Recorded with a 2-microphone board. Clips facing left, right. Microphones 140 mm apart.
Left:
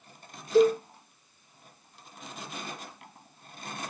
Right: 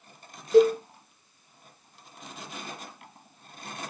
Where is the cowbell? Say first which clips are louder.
Right 3 dB; 65° right (ahead or behind), 1.5 m.